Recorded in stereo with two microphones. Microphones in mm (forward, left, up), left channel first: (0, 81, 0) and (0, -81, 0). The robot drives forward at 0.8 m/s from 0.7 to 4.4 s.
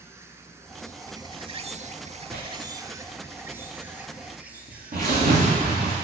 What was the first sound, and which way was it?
An insect, 15° right (ahead or behind).